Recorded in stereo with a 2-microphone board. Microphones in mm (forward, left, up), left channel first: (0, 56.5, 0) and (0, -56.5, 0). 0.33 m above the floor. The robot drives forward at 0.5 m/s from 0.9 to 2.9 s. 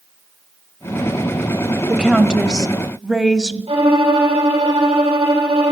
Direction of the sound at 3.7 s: 60° right (ahead or behind).